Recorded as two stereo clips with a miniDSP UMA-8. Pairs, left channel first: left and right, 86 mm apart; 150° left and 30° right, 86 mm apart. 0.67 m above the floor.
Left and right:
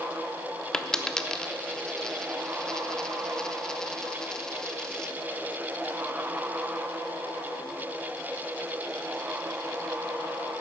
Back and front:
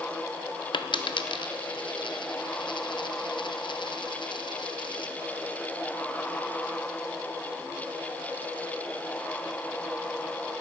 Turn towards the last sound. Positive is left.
turn(degrees=175)